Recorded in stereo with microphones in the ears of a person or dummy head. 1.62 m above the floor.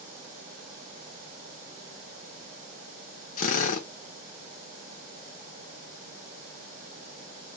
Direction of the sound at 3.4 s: 40° left (ahead or behind).